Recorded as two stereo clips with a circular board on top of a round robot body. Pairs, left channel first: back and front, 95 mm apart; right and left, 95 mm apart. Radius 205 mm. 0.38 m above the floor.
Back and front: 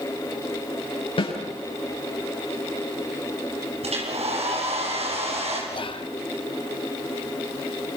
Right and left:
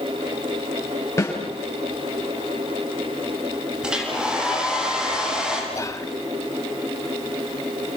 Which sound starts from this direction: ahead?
A hair dryer, at 3.8 s.